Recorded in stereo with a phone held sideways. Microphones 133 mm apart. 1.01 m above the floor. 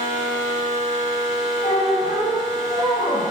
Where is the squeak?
65° left (ahead or behind), 1.8 m.